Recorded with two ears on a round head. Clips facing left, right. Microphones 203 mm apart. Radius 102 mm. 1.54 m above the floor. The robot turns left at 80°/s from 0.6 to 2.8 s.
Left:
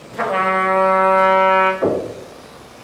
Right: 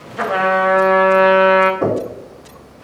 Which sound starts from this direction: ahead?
A trumpet, at 0.2 s.